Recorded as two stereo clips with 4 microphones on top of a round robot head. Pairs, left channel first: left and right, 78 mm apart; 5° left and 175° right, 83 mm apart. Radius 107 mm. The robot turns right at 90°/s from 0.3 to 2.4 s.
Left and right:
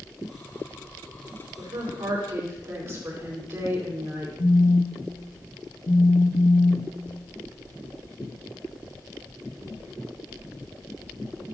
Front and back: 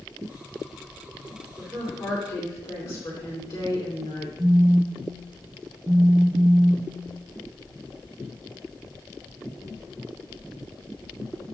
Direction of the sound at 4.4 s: 115° left.